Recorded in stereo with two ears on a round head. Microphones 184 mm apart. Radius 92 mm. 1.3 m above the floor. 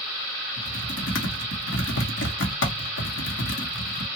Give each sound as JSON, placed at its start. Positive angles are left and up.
{"t": 0.6, "sound": "typing on a keyboard", "side_deg": 65, "distance_m": 1.0}